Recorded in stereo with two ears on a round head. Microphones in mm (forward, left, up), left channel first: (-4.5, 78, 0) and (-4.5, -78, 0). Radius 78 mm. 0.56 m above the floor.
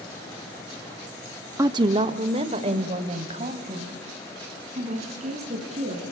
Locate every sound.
1.6 s a woman speaking: 15° right (ahead or behind), 0.6 m; by 6.0 s 40° right (ahead or behind), 6 m